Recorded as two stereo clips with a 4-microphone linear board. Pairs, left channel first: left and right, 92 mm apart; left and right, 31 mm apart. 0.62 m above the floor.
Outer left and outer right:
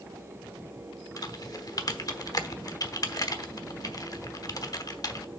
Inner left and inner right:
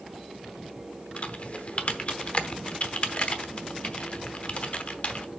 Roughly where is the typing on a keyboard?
Left.